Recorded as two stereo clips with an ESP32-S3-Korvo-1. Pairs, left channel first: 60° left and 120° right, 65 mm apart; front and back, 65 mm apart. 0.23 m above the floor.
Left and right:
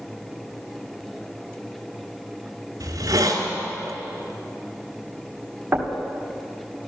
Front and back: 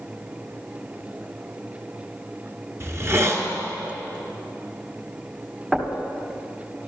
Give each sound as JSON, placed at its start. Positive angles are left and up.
{"t": 2.8, "sound": "a hiss", "azimuth_deg": -135, "distance_m": 1.9}
{"t": 5.7, "sound": "knocking", "azimuth_deg": -105, "distance_m": 1.5}